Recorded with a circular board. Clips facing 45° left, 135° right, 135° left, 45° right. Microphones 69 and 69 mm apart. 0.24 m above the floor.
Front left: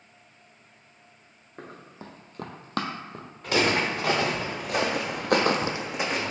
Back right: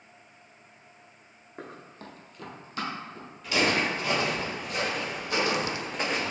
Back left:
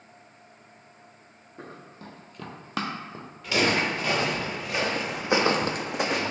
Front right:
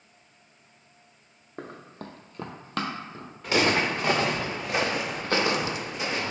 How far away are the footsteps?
About 1.7 m.